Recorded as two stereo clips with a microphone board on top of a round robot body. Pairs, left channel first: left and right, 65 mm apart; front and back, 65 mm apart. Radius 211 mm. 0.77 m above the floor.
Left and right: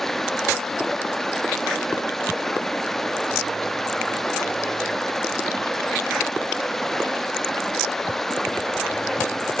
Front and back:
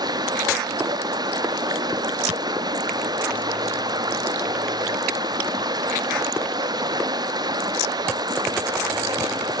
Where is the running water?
175° left, 1.0 m.